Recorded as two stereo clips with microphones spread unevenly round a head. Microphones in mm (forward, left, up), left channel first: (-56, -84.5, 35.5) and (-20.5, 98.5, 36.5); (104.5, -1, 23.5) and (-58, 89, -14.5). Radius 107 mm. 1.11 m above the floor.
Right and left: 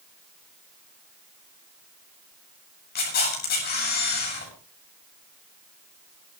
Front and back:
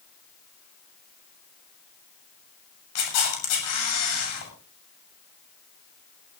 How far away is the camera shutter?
About 8.5 m.